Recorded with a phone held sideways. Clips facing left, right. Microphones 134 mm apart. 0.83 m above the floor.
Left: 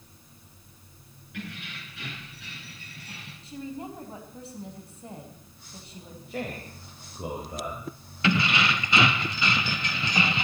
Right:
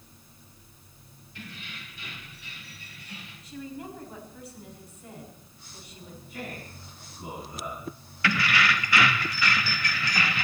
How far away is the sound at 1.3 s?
About 9 m.